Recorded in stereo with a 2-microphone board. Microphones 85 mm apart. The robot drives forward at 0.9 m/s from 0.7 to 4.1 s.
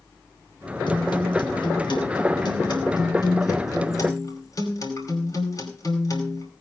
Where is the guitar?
80° left, 3.5 m; by 6.5 s 45° left (ahead or behind), 4.5 m.